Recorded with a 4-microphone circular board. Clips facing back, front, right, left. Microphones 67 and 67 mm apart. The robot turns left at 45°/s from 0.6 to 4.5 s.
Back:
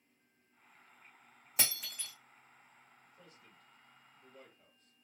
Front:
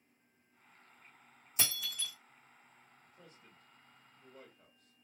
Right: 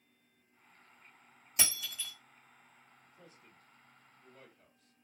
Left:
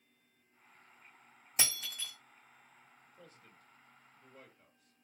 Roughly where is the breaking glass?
Behind left.